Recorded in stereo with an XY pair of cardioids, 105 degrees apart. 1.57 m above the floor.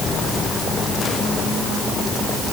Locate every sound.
Only background noise.